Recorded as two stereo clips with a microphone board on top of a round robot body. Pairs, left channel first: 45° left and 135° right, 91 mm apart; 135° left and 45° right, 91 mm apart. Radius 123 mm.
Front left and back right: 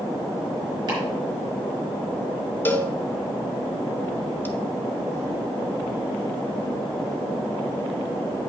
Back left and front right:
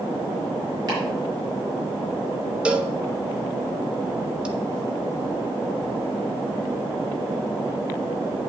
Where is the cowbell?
15° left, 1.2 m.